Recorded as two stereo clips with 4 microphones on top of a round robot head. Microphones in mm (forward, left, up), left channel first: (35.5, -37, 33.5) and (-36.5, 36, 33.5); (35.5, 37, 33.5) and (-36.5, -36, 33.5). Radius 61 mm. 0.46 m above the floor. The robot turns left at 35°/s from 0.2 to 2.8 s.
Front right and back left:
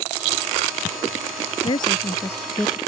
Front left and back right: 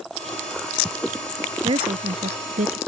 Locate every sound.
1.6 s a woman speaking: 90° right; by 2.8 s 130° right